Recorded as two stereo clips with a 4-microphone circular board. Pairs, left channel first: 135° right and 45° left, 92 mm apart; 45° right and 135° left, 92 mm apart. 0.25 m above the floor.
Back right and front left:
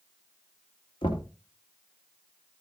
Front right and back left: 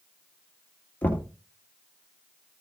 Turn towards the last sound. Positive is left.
turn(degrees=-115)